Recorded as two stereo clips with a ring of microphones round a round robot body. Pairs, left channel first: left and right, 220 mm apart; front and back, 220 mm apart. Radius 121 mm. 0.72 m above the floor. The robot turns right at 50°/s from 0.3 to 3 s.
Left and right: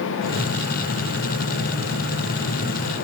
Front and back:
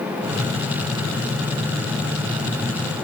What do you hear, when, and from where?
Only background noise.